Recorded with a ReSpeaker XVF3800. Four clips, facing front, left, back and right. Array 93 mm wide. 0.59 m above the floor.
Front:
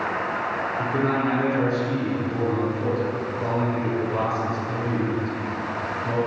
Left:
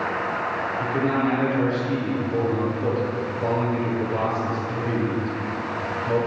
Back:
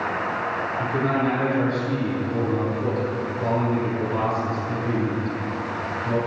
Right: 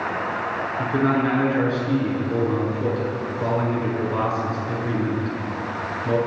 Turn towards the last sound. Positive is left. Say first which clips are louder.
# right 3 dB, even
turn(degrees=-80)